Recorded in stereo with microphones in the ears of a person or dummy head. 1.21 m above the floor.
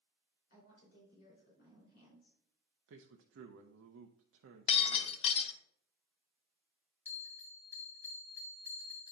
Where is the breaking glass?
40° left (ahead or behind), 1.0 m.